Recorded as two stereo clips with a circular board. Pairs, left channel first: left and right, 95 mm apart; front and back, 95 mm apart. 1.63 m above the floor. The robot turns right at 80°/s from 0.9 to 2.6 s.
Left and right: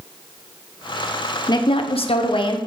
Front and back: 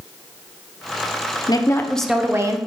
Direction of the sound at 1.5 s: 45° left.